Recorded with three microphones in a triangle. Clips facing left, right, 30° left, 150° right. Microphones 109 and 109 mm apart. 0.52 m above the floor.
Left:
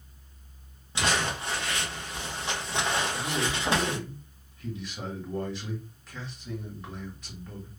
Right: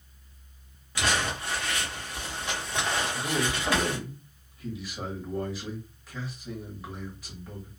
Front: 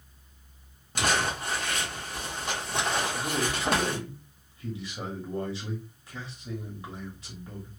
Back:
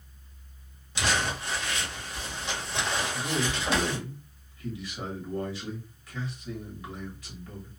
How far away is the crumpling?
About 1.0 m.